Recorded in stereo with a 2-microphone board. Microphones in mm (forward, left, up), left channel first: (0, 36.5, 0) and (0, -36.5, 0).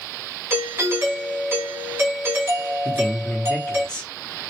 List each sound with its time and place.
0.5 s a doorbell: 30° right (ahead or behind), 1.2 m
2.9 s a man speaking: 15° left (ahead or behind), 0.9 m